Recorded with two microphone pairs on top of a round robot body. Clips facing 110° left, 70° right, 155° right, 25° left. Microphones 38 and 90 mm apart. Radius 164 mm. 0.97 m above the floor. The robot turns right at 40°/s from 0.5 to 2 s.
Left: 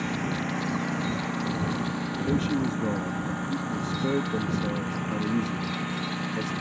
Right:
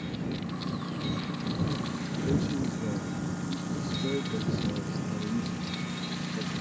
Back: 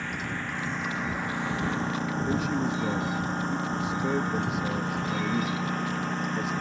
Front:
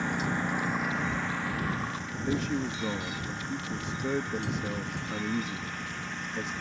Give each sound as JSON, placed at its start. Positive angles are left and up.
{"t": 0.0, "sound": "a lawn mower", "azimuth_deg": 100}
{"t": 2.2, "sound": "a man speaking", "azimuth_deg": 120}